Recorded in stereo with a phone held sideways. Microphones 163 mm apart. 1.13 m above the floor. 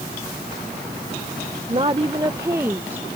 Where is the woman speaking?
40° right (ahead or behind); by 3.1 s 10° right (ahead or behind).